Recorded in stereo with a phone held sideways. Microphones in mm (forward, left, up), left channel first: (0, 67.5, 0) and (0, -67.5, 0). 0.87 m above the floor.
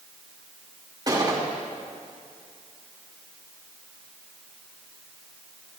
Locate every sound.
1.1 s a gunshot: 30° right (ahead or behind), 2.5 m